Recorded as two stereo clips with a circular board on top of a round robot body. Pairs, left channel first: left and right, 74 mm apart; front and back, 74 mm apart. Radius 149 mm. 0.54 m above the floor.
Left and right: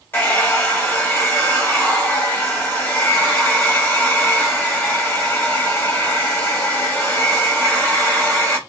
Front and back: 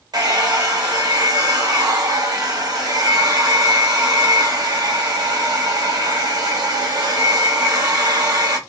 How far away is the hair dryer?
About 1.8 m.